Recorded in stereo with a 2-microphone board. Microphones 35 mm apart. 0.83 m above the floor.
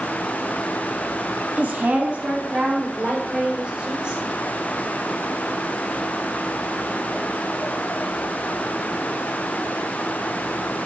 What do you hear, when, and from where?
1.6 s a woman speaking: 55° right (ahead or behind), 1.5 m; by 4.2 s 30° right (ahead or behind), 3.5 m